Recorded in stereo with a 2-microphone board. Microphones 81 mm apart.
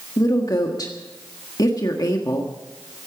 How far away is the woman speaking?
About 1.5 m.